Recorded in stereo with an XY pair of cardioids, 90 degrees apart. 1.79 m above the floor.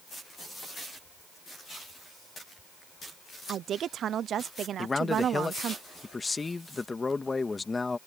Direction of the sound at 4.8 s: 30° left.